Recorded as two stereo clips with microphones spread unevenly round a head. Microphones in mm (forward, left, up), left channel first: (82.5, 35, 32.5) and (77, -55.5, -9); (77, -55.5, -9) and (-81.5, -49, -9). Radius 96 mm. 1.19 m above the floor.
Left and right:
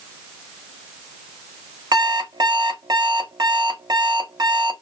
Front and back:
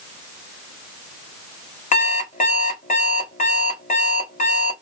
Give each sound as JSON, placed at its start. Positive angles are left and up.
{"t": 1.9, "sound": "an alarm clock", "azimuth_deg": -45, "distance_m": 1.3}